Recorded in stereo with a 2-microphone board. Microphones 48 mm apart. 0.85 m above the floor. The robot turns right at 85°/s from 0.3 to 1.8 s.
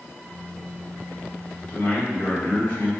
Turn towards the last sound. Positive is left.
turn(degrees=45)  # may be behind; listen again after turning